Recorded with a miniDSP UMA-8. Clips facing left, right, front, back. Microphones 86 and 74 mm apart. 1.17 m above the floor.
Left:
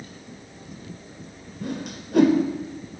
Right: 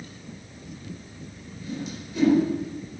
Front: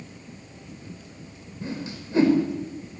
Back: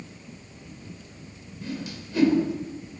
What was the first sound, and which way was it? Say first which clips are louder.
A whoosh: left 2 dB, front 1 dB; 60° left.